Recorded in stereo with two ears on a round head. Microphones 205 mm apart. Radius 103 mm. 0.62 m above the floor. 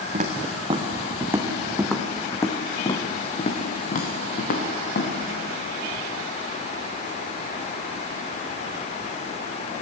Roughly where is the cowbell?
No cowbell in this recording.